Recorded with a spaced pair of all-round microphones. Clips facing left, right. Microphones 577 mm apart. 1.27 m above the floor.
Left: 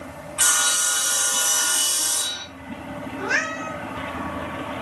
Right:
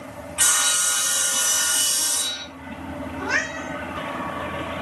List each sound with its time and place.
0.4 s sawing: 50° right (ahead or behind), 2 m
3.2 s a cat meowing: 25° right (ahead or behind), 4 m